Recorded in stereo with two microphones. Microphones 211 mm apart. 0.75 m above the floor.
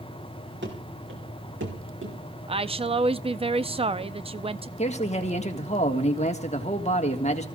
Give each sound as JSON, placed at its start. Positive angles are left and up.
{"t": 0.6, "sound": "running footsteps", "side_deg": -65, "distance_m": 3.5}
{"t": 2.5, "sound": "a woman speaking", "side_deg": -30, "distance_m": 0.5}
{"t": 4.8, "sound": "a man speaking", "side_deg": 35, "distance_m": 1.6}